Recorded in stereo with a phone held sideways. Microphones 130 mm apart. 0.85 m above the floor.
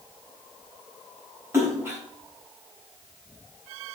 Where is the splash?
20° right (ahead or behind), 5.5 m.